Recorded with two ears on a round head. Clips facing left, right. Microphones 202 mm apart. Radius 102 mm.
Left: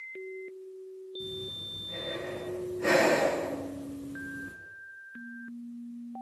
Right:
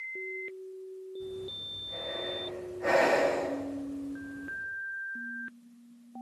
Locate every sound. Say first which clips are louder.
1.2 s breathing: right 2 dB; 45° left (ahead or behind), 7.5 m